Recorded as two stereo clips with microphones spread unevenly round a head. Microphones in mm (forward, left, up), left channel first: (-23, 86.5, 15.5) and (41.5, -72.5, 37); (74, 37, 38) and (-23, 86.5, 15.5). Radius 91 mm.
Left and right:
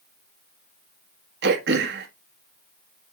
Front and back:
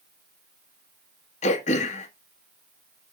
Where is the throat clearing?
50° right, 1.4 m.